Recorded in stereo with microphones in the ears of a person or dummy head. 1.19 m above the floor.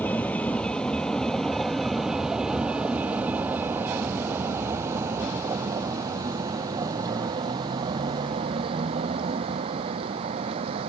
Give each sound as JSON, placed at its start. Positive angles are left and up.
{"t": 0.0, "sound": "a vehicle", "side_deg": 15}